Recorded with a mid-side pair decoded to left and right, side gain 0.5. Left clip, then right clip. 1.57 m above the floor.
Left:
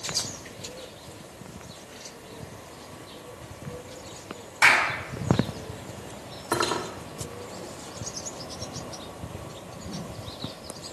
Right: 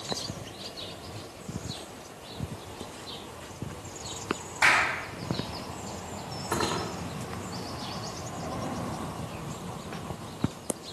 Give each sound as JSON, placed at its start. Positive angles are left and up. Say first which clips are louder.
{"t": 4.6, "sound": "a clap", "louder": "left 3 dB", "azimuth_deg": 45, "distance_m": 5.5}
{"t": 6.5, "sound": "cutlery clinking", "louder": "left 3 dB", "azimuth_deg": 45, "distance_m": 2.5}